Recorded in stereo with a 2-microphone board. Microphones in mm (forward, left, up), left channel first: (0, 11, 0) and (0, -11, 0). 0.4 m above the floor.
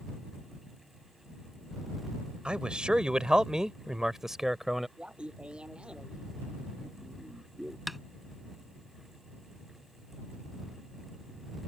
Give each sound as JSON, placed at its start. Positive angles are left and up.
{"t": 2.5, "sound": "a man speaking", "side_deg": -55}
{"t": 5.0, "sound": "laughter", "side_deg": -55}
{"t": 7.9, "sound": "tapping", "side_deg": -10}